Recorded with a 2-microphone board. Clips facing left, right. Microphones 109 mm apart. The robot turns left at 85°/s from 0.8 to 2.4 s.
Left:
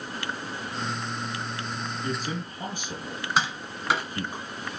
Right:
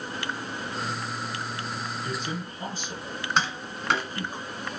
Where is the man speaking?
10° right (ahead or behind), 1.9 m; by 4.4 s 15° left (ahead or behind), 1.9 m.